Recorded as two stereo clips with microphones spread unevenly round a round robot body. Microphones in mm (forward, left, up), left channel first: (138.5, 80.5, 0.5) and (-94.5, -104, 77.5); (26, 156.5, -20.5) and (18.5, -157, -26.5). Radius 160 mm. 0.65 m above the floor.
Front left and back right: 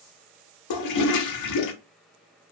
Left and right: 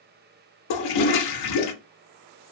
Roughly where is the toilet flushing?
Left.